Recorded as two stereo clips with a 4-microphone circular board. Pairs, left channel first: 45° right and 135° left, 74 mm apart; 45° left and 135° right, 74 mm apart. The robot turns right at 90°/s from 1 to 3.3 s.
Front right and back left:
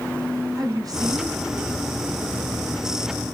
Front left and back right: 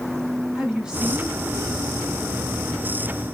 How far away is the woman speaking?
About 2.5 m.